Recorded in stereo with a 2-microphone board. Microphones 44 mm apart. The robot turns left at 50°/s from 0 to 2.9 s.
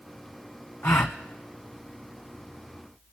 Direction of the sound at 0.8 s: 55° left (ahead or behind).